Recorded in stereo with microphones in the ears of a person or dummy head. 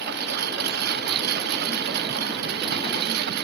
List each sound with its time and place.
0.0 s a lawn mower: 60° right (ahead or behind)